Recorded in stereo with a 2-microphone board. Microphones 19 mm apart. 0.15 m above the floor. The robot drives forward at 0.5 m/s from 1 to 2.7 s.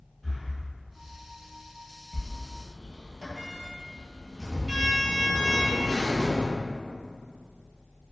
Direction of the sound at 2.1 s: 55° right (ahead or behind).